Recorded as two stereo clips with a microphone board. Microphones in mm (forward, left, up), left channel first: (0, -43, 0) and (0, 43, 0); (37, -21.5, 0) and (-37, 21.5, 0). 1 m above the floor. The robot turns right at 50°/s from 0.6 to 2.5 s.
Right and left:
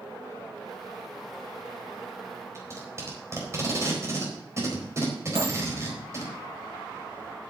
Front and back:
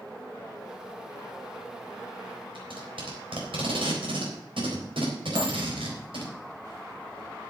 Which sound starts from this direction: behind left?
Tape being pulled, at 2.5 s.